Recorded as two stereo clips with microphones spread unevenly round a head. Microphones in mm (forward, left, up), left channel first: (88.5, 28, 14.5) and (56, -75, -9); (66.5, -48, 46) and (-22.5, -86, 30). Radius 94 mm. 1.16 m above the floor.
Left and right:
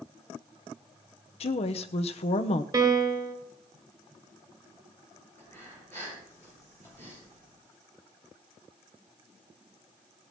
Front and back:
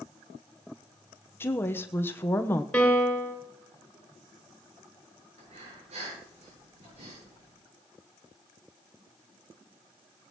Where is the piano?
55° right, 2.5 m.